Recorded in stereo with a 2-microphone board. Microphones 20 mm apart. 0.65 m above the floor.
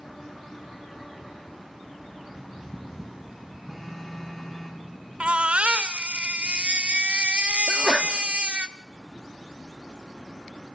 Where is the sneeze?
Centre (ahead or behind), 1.3 m.